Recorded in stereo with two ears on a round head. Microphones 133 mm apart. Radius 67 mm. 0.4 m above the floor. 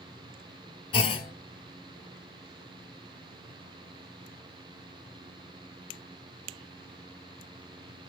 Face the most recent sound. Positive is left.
turn(degrees=35)  # may be behind; listen again after turning